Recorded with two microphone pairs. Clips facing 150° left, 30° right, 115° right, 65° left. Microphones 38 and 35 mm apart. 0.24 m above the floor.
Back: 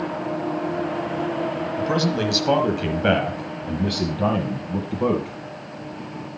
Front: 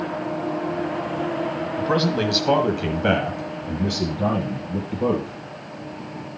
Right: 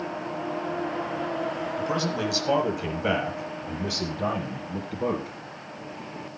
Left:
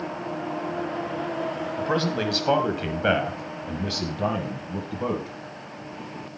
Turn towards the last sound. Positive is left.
turn(degrees=140)